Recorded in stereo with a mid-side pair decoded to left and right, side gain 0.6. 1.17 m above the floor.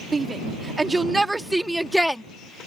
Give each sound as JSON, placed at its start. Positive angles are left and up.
{"t": 0.1, "sound": "a shout", "azimuth_deg": -25}